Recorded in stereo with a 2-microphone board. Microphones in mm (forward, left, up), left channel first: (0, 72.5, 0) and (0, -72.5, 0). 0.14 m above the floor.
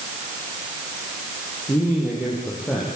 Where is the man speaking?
15° left (ahead or behind), 5.5 m; by 2.9 s 10° left (ahead or behind), 6 m.